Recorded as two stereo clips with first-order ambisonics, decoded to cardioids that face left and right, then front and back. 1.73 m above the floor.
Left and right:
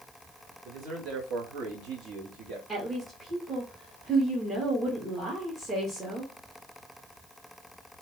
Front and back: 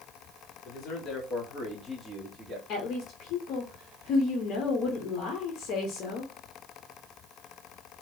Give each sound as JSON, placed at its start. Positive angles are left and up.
{"t": 0.7, "sound": "a man speaking", "azimuth_deg": -45, "distance_m": 1.3}
{"t": 2.7, "sound": "a woman speaking", "azimuth_deg": -20, "distance_m": 0.7}